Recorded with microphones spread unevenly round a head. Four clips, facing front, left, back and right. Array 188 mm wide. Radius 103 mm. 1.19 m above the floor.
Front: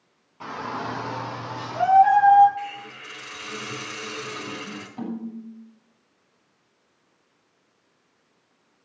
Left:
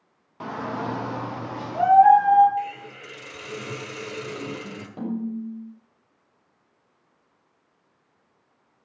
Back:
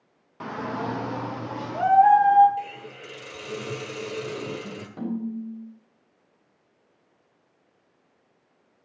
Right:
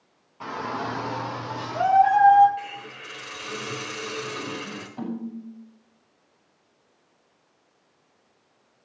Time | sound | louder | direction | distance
0.4 | a shout | left 1 dB, back 1 dB | 155° left | 1.7 m
2.6 | a hiss | left 6 dB, even | 175° left | 1.6 m
5.0 | a snare drum | left 4 dB, back 3 dB | 115° left | 5.5 m